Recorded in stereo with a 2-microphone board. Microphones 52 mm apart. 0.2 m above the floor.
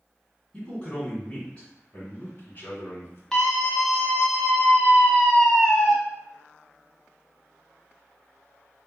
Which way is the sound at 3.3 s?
15° left (ahead or behind).